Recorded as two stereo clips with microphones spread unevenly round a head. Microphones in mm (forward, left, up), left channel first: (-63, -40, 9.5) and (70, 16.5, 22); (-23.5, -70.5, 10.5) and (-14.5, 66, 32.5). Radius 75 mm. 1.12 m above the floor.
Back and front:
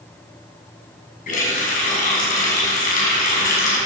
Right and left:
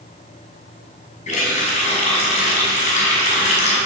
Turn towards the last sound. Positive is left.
turn(degrees=-130)